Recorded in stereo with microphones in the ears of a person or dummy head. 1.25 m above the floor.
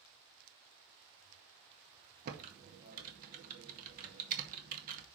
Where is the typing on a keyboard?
45° right (ahead or behind), 1.9 m.